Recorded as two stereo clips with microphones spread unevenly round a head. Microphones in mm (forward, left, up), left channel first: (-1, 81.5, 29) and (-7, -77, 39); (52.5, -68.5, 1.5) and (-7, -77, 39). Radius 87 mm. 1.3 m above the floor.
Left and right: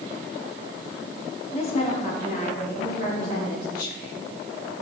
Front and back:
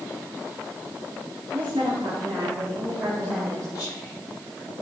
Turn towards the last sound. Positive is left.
turn(degrees=55)